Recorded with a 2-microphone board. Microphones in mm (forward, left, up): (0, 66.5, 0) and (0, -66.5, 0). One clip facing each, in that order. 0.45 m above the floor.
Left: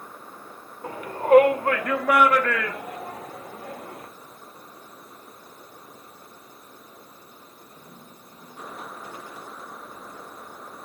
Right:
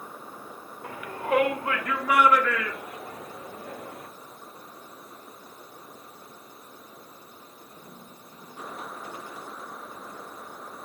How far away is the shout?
About 1.4 m.